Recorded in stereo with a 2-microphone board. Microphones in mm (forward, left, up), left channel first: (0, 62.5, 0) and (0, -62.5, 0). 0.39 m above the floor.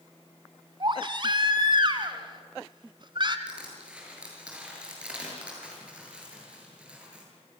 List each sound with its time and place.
0.8 s a baby crying: 40° right (ahead or behind), 1.5 m
3.5 s crushing: 10° right (ahead or behind), 7 m